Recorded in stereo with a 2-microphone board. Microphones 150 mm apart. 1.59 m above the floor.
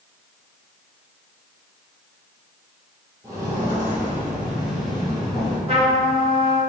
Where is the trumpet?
40° right (ahead or behind), 1.4 m.